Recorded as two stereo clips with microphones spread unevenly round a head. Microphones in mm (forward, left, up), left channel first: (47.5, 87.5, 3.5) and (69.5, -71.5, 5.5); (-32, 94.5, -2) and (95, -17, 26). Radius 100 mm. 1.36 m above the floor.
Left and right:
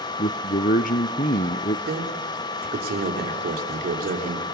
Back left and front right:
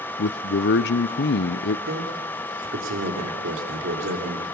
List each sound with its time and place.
0.2 s a man speaking: 145° left, 0.6 m
1.9 s a man speaking: 55° right, 3 m